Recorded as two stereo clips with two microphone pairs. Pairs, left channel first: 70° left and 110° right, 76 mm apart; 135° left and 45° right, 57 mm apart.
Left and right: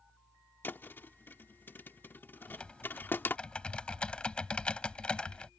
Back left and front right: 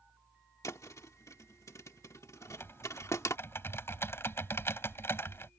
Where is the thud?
125° left.